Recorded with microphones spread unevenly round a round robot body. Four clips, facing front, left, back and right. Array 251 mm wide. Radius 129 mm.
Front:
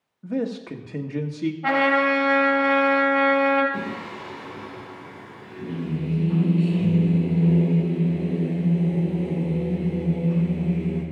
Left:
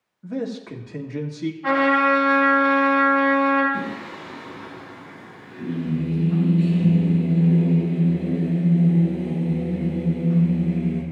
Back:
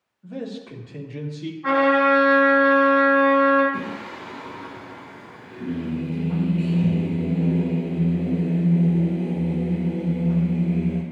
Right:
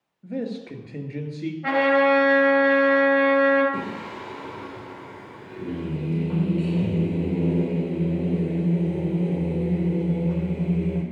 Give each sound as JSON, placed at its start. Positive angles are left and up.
{"t": 0.2, "sound": "a man speaking", "azimuth_deg": 25, "distance_m": 1.6}
{"t": 1.6, "sound": "a trumpet", "azimuth_deg": -20, "distance_m": 4.0}
{"t": 3.7, "sound": "singing", "azimuth_deg": -90, "distance_m": 3.0}